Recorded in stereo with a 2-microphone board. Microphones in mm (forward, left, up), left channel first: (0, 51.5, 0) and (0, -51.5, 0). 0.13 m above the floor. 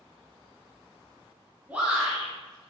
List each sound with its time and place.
1.7 s a shout: 15° right (ahead or behind), 1.7 m